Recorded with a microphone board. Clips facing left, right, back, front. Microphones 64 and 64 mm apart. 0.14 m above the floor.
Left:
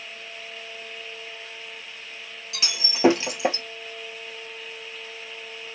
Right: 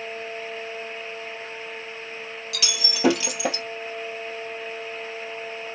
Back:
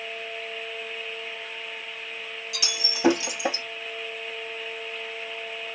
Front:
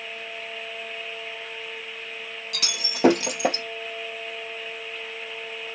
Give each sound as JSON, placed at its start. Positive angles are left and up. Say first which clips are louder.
{"t": 2.5, "sound": "breaking glass", "louder": "right 1 dB, even", "azimuth_deg": 30, "distance_m": 1.4}